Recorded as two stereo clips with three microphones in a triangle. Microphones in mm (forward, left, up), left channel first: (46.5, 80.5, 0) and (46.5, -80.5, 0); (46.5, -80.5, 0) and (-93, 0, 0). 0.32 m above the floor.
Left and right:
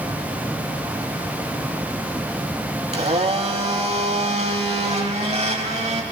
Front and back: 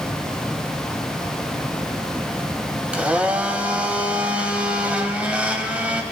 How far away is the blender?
About 0.8 m.